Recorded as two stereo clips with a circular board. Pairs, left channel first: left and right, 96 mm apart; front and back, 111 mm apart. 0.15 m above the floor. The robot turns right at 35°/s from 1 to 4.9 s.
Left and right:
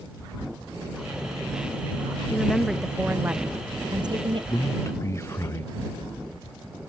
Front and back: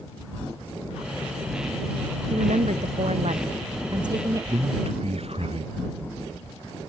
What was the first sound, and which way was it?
A woman speaking, 165° left.